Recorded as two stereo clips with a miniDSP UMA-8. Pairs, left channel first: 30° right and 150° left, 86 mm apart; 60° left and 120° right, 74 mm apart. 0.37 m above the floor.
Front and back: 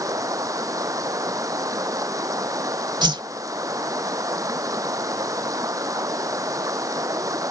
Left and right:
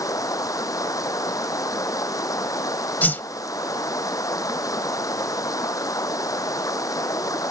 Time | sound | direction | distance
0.0 | running water | 100° left | ?
3.0 | a whoosh | 125° left | ?